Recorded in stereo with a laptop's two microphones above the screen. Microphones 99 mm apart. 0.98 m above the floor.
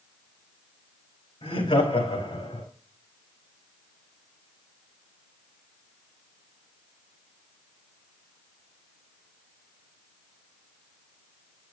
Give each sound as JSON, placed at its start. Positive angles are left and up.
{"t": 1.4, "sound": "laughter", "side_deg": 85, "distance_m": 4.5}